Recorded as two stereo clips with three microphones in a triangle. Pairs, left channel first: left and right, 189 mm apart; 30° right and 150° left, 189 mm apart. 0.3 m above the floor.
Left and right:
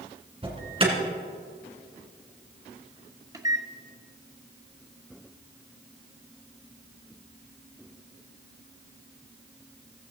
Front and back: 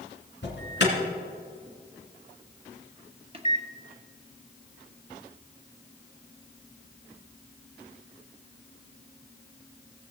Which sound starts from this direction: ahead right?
An alarm, at 0.4 s.